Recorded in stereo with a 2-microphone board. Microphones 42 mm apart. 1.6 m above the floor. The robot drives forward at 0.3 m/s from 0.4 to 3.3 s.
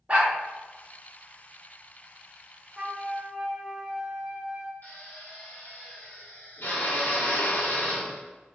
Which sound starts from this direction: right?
A dog barking, at 0.1 s.